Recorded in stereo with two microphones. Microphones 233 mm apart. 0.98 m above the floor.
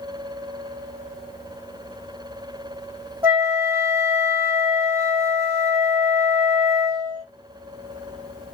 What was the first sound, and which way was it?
A flute, 10° right (ahead or behind).